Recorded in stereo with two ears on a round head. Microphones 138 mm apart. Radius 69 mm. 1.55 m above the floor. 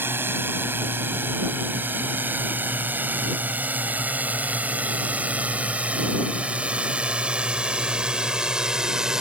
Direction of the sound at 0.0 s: 15° right (ahead or behind).